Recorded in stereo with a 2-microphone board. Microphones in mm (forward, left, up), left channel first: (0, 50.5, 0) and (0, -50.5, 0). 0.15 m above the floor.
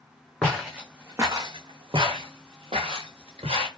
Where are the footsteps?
5° left (ahead or behind), 0.8 m; by 3.7 s 80° right, 1.4 m.